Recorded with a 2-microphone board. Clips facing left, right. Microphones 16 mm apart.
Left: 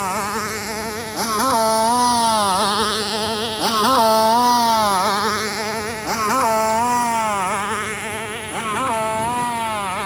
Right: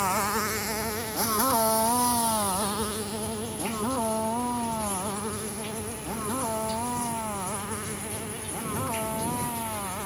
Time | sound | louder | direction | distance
0.0 | a motorcycle | left 4 dB | 10° left (ahead or behind) | ?